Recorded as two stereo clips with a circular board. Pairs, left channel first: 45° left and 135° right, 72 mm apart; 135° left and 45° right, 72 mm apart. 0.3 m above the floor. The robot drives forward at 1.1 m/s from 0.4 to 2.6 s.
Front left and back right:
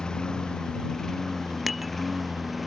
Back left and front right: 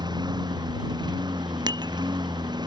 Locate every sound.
0.0 s a lawn mower: 35° right; by 2.7 s 45° right
1.7 s dishes clattering: 45° right; by 1.9 s 50° right